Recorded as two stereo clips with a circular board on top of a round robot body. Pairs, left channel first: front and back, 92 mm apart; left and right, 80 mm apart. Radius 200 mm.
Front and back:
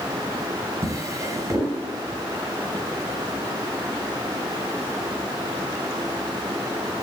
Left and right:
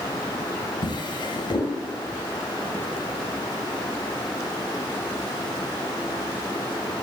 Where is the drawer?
120° left, 3 m.